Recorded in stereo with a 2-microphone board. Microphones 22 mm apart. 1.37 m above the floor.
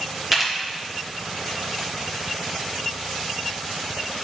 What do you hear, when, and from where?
0.3 s a camera shutter: 15° right (ahead or behind), 1.3 m